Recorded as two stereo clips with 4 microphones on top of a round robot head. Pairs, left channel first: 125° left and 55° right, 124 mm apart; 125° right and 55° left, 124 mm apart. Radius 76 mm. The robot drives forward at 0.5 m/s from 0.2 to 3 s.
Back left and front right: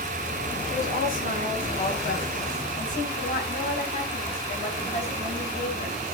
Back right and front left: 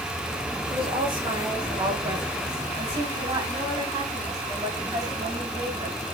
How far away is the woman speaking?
About 5.5 m.